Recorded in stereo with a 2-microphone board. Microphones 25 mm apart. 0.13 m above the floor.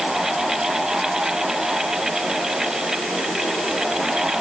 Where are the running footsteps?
I don't hear running footsteps.